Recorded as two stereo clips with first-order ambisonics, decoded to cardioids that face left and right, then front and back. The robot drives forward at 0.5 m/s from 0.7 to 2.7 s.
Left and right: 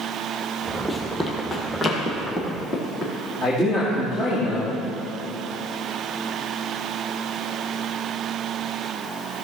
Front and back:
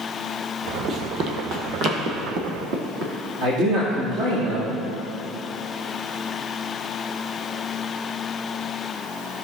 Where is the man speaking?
155° left, 2.5 m.